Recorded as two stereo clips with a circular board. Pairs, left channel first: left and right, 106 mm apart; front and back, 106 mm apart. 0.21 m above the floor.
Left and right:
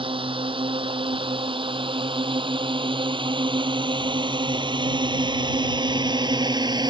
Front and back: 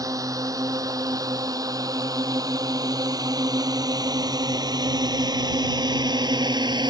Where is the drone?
125° right; by 6.9 s 135° right.